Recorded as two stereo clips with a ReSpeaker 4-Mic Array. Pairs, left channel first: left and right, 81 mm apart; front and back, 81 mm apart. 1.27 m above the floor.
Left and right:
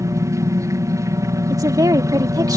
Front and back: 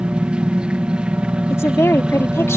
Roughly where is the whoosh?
I don't hear a whoosh.